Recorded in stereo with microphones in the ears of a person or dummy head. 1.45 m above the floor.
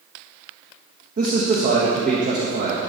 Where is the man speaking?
35° right (ahead or behind), 1.4 m.